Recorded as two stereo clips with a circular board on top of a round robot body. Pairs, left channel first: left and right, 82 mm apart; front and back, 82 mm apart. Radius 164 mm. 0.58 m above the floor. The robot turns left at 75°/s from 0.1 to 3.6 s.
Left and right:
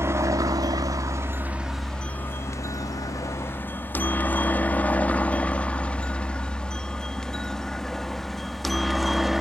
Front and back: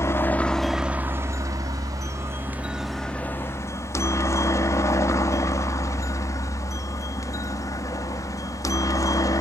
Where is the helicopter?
45° right; by 9.4 s 5° right.